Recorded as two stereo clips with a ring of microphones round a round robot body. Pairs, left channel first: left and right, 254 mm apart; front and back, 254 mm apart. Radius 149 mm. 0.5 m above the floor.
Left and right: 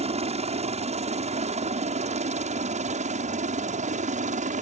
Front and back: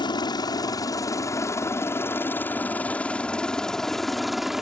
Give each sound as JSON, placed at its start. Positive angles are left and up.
{"t": 0.0, "sound": "a helicopter", "azimuth_deg": -55}